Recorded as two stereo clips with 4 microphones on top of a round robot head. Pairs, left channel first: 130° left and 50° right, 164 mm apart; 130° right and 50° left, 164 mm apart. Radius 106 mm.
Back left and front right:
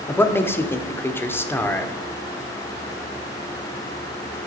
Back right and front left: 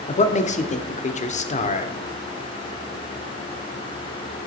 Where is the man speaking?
155° right, 1.1 m.